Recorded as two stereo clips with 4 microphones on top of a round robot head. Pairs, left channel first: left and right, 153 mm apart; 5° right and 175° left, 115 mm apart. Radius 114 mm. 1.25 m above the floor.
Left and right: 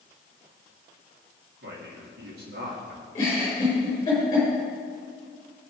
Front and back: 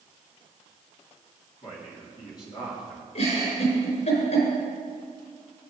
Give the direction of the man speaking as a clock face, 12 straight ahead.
2 o'clock.